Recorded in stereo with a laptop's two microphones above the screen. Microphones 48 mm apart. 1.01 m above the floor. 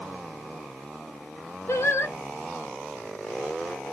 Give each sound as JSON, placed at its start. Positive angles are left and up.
{"t": 1.7, "sound": "singing", "side_deg": 65, "distance_m": 1.0}